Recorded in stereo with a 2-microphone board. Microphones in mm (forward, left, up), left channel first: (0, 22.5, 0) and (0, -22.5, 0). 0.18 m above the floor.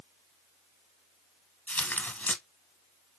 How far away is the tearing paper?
About 0.9 m.